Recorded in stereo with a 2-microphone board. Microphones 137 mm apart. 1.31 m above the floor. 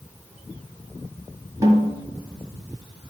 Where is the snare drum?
25° right (ahead or behind), 1.5 m.